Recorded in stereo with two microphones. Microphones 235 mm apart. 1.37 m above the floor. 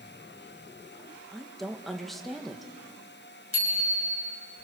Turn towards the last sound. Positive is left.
turn(degrees=75)  # may be behind; listen again after turning